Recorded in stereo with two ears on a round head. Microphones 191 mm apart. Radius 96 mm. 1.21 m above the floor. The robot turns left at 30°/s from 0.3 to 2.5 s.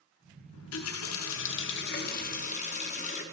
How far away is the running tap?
About 0.5 m.